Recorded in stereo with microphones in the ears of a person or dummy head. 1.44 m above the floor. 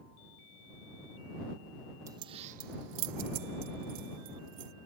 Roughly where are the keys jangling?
Right.